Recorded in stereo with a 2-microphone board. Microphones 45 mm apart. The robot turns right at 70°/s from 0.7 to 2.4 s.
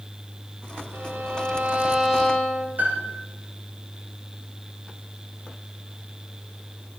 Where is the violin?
90° right, 3.5 m; by 2.7 s 15° left, 3.5 m.